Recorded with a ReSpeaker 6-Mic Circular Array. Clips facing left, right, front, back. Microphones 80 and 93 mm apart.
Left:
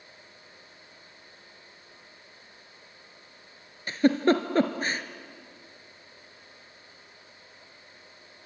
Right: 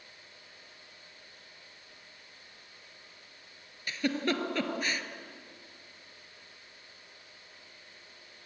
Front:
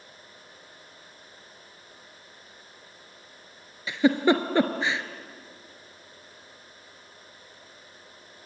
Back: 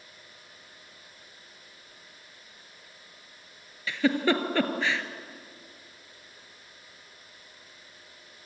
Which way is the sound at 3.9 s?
60° left.